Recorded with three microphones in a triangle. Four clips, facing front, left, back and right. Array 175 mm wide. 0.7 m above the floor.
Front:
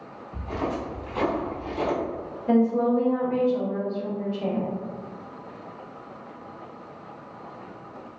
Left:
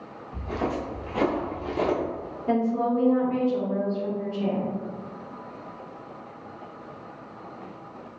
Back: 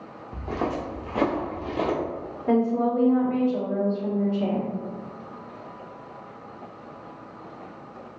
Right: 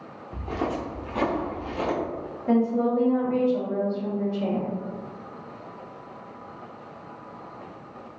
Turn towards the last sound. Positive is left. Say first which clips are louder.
# right 2 dB, front 1 dB
turn(degrees=170)